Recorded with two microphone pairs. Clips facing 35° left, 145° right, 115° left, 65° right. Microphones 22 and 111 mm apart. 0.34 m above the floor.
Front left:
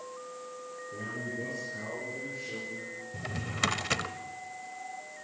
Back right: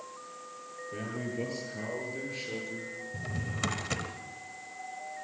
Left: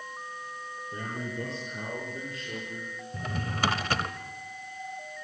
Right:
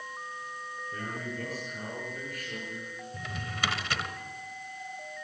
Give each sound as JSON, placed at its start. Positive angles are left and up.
{"t": 0.9, "sound": "a man speaking", "azimuth_deg": 180, "distance_m": 8.5}
{"t": 3.1, "sound": "a drawer", "azimuth_deg": 90, "distance_m": 1.0}